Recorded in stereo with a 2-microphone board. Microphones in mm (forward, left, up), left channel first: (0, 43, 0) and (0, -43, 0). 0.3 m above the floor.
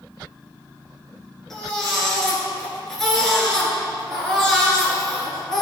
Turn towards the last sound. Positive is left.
turn(degrees=5)  # may be behind; listen again after turning